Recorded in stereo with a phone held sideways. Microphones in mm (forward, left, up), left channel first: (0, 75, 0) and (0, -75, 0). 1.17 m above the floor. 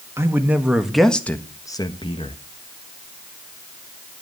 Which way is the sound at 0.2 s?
15° right (ahead or behind).